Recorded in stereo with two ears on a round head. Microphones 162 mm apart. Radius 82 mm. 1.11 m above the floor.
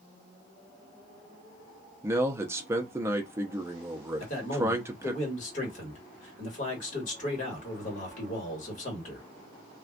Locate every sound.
2.0 s a man speaking: 15° right (ahead or behind), 0.5 m
4.2 s a man speaking: 40° left (ahead or behind), 1.4 m